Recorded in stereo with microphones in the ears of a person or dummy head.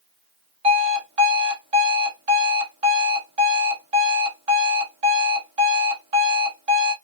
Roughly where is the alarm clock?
Right.